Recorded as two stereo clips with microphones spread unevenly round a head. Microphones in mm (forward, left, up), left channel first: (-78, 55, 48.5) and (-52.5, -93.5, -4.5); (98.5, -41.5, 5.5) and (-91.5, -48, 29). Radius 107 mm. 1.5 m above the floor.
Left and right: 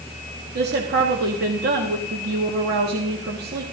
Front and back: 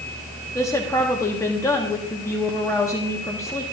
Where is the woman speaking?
75° right, 1.5 m.